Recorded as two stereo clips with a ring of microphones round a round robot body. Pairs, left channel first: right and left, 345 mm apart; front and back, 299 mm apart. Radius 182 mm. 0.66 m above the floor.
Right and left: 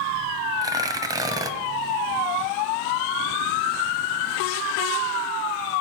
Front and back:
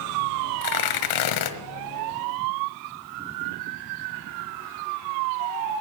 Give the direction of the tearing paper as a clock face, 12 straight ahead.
12 o'clock.